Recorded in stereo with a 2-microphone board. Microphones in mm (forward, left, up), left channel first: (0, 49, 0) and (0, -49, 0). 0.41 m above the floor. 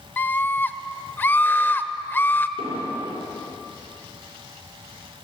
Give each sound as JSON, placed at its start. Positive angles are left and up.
{"t": 0.2, "sound": "a scream", "side_deg": 20, "distance_m": 1.3}
{"t": 2.6, "sound": "an explosion", "side_deg": -85, "distance_m": 7.0}